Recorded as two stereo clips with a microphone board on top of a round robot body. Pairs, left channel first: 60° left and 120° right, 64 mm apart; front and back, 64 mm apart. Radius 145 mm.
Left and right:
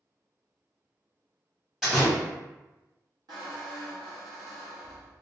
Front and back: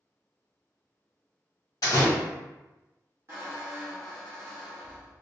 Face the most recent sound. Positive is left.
turn(degrees=-135)